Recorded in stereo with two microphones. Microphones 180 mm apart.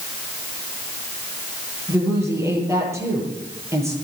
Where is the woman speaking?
15° right (ahead or behind), 9.5 m.